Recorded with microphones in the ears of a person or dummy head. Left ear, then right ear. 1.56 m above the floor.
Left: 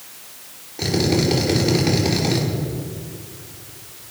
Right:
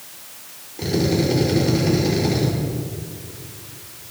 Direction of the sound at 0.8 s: 30° left (ahead or behind).